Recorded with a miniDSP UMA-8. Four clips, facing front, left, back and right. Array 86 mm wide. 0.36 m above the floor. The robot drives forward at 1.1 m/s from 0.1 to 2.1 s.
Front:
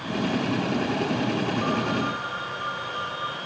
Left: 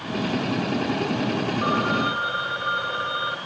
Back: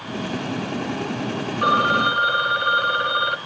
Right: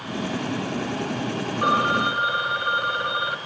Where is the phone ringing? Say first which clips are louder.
Right 4 dB, back 7 dB; 155° right, 0.9 m; by 3.4 s 165° right, 1.4 m.